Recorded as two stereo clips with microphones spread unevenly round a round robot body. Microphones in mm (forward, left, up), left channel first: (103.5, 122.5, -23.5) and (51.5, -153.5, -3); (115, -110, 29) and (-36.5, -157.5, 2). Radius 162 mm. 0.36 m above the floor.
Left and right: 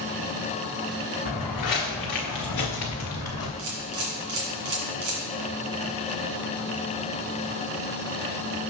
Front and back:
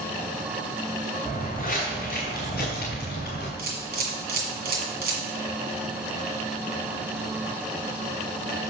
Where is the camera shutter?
150° right, 1.9 m.